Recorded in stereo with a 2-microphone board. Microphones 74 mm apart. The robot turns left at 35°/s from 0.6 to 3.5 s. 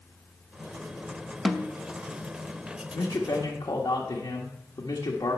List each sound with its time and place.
1.4 s a snare drum: 5° left (ahead or behind), 0.8 m; by 1.7 s 5° right (ahead or behind), 0.8 m
2.9 s a man speaking: 80° left, 1.3 m